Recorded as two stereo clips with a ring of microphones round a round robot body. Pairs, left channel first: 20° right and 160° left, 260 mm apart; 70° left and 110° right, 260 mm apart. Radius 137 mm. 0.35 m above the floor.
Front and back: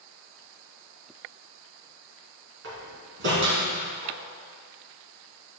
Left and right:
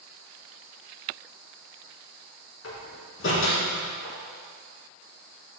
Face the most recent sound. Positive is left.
turn(degrees=110)